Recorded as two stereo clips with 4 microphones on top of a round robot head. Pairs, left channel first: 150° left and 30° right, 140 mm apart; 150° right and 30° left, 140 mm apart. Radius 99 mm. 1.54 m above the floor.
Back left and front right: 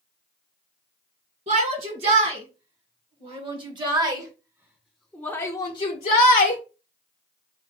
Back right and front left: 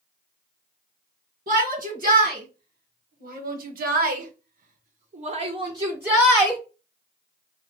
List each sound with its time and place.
1.5 s a shout: 10° left, 2 m; by 6.6 s 125° left, 0.8 m